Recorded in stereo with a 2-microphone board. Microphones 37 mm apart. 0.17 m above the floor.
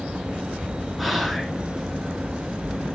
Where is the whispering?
Centre (ahead or behind), 2 m.